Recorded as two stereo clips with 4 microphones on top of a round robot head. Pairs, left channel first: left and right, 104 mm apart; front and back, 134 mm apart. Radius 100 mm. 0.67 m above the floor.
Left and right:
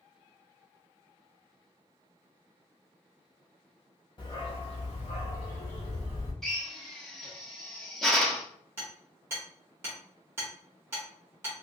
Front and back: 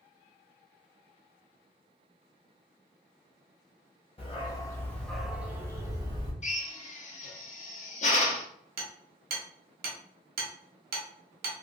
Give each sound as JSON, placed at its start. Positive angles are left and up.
{"t": 4.2, "sound": "a dog barking", "azimuth_deg": 50, "distance_m": 1.1}
{"t": 6.4, "sound": "a drill", "azimuth_deg": 5, "distance_m": 1.0}
{"t": 8.8, "sound": "hammering", "azimuth_deg": -165, "distance_m": 0.9}